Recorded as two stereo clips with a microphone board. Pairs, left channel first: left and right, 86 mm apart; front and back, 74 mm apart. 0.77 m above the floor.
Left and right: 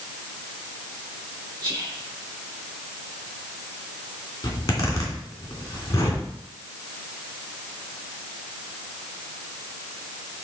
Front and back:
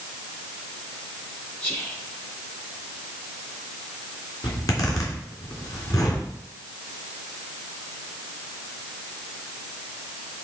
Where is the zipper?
40° left, 3 m.